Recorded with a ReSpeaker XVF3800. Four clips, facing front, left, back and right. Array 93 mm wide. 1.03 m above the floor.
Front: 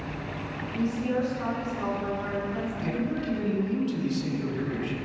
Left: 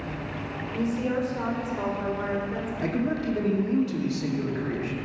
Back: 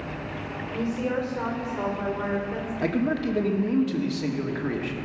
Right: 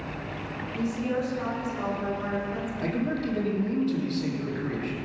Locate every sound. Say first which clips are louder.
0.7 s a woman speaking: left 2 dB, even; 145° left, 4.5 m
2.8 s a man speaking: left 2 dB, back 7 dB; 170° left, 2 m